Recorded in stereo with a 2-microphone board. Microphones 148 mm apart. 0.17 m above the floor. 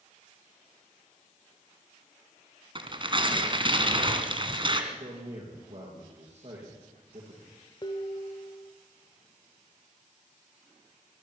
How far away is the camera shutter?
I don't hear a camera shutter.